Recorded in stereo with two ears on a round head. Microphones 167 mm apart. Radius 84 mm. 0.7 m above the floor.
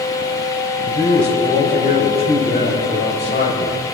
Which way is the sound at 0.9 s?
55° left (ahead or behind).